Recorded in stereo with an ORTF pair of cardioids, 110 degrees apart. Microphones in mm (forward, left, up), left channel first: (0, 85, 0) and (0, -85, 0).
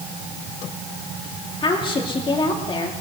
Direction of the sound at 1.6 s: 30° left.